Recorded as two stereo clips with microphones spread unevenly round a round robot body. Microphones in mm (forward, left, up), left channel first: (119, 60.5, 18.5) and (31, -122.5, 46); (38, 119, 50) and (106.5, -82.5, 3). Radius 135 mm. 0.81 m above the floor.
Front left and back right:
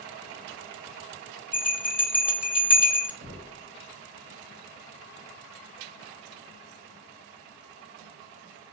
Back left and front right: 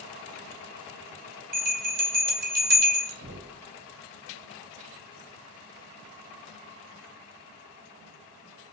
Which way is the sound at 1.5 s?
30° right.